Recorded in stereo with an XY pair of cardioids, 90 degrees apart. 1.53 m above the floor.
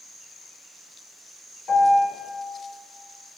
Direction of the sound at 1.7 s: 65° left.